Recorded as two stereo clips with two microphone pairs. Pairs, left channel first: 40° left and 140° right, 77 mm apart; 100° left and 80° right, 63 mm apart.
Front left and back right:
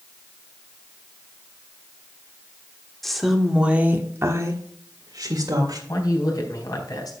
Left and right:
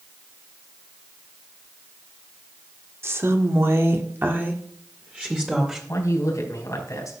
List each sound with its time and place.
3.0 s a woman speaking: 50° right, 1.6 m; by 5.8 s 150° right, 2 m
5.9 s a man speaking: 70° left, 3.5 m